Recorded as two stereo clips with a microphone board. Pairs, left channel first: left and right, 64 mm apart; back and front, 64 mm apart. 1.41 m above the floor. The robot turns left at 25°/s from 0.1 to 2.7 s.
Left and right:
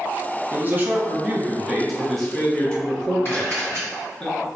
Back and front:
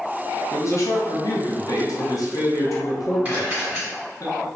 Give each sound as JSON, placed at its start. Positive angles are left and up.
{"t": 0.5, "sound": "a man speaking", "azimuth_deg": -145, "distance_m": 0.7}
{"t": 3.2, "sound": "a camera shutter", "azimuth_deg": 60, "distance_m": 1.9}